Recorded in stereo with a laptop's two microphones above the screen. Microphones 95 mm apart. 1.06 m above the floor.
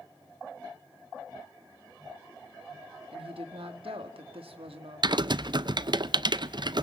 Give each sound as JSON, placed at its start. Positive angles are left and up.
{"t": 3.1, "sound": "a woman speaking", "side_deg": -75, "distance_m": 1.6}
{"t": 5.0, "sound": "typing on a keyboard", "side_deg": -50, "distance_m": 0.5}